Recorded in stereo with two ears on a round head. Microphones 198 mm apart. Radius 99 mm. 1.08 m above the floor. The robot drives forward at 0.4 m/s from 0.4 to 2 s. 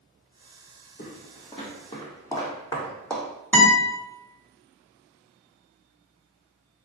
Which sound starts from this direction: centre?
A guitar, at 3.5 s.